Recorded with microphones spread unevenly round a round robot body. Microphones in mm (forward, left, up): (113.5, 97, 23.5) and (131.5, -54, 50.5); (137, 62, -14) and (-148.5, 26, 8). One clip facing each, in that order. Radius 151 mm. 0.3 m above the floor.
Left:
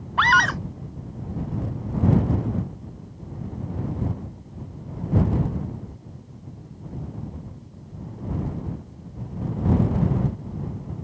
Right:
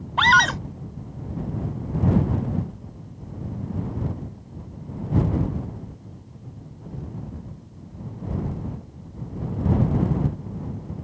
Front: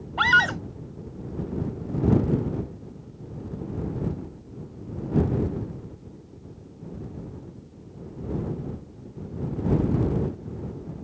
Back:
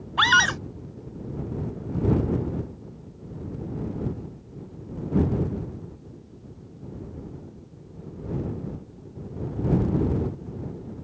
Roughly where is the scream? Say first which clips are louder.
Right 1 dB, even; behind right.